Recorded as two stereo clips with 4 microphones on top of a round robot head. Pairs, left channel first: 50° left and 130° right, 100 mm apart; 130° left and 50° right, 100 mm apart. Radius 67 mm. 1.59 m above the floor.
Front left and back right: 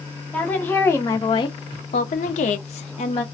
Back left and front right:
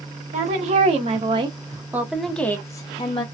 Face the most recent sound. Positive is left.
turn(degrees=80)